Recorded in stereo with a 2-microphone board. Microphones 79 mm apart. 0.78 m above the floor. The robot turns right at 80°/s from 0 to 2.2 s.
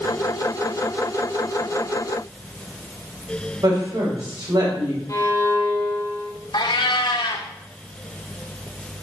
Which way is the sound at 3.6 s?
60° right (ahead or behind).